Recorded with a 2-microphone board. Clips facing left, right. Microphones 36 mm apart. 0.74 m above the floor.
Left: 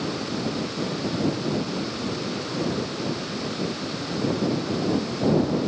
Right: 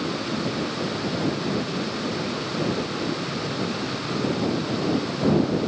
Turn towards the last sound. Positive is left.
No sound to turn to.